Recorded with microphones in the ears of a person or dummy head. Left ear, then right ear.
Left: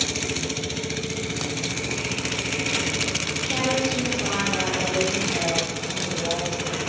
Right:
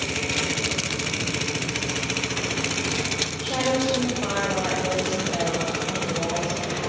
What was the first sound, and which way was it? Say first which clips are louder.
A woman speaking: even; 25° right (ahead or behind).